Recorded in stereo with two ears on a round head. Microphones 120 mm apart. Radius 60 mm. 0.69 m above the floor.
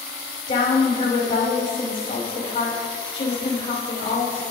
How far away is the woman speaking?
About 5 m.